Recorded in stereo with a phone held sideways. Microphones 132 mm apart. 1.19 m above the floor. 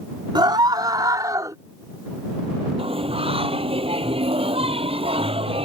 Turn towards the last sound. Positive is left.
turn(degrees=-45)  # may be behind; listen again after turning